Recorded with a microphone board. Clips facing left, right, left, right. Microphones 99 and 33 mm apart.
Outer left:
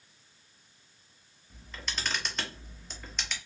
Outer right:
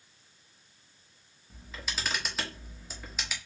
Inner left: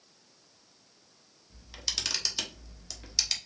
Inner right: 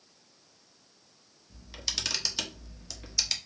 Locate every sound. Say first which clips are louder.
1.5 s a camera shutter: even, even; 5° right (ahead or behind), 0.9 m